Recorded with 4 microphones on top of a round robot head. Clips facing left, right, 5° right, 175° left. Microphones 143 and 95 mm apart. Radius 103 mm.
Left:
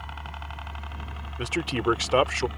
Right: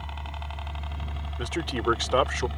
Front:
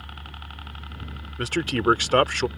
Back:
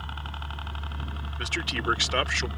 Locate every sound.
0.0 s a helicopter: 140° right; by 2.6 s 135° right
1.4 s a man speaking: 10° left